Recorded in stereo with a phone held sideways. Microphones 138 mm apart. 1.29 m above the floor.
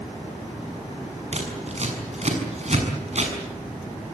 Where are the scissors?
55° right (ahead or behind), 6.5 m.